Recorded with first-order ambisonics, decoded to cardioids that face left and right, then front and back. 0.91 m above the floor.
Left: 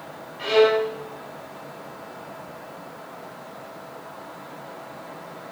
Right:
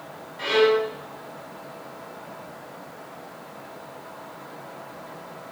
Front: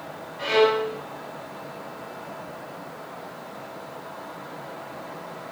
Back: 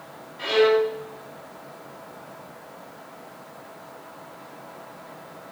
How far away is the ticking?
I don't hear ticking.